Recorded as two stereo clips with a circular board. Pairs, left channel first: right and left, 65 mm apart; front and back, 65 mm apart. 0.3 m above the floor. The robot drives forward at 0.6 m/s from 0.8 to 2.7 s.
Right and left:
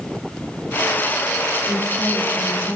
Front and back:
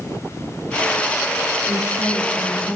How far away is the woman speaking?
About 5.5 m.